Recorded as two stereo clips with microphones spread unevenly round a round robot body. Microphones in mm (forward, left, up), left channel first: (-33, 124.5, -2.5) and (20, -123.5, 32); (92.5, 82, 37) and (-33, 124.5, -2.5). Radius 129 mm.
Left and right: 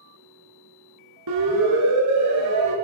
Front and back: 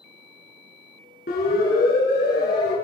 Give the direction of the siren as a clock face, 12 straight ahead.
2 o'clock.